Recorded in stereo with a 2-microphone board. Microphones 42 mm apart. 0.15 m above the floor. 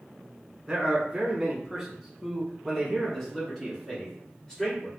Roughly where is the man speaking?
Centre.